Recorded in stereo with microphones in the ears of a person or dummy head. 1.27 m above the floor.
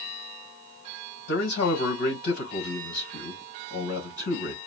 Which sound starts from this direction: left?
A man speaking, at 1.3 s.